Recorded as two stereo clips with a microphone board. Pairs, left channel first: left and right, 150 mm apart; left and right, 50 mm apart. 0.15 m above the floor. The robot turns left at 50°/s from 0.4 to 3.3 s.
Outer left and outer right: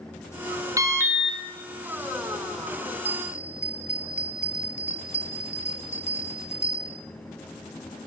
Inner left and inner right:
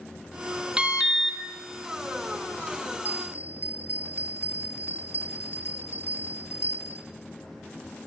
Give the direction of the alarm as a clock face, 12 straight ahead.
5 o'clock.